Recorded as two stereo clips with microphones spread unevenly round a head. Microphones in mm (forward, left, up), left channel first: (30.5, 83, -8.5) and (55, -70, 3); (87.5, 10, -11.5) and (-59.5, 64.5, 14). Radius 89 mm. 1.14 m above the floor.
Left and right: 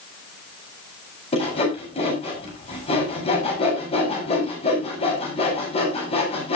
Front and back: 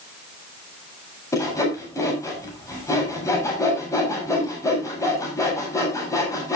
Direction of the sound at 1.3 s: 50° left.